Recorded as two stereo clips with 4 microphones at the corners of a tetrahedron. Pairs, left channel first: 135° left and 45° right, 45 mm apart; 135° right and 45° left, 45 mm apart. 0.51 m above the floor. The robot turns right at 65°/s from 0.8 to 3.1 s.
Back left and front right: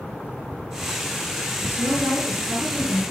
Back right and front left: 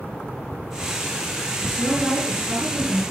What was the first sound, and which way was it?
A woman speaking, 60° right.